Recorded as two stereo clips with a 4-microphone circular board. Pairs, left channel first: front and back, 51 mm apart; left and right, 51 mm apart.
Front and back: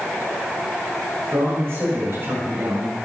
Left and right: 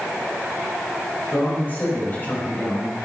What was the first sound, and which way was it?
A man speaking, 145° left.